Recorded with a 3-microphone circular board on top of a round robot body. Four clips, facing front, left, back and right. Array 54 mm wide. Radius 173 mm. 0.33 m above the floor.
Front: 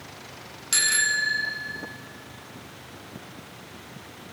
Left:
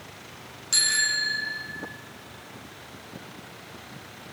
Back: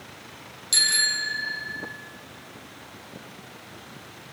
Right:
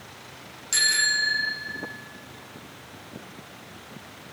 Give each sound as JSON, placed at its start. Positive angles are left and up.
{"t": 0.7, "sound": "a bicycle bell", "azimuth_deg": 0, "distance_m": 4.0}